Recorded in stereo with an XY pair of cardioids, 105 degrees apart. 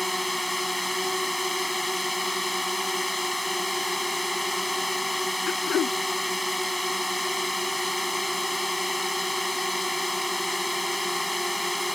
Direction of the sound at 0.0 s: Straight ahead.